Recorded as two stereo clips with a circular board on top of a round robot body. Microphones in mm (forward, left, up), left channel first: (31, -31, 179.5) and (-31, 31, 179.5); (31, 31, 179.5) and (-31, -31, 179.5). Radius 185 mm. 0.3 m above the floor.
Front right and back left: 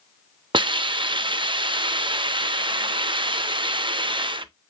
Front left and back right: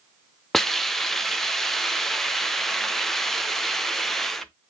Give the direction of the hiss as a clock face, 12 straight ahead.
8 o'clock.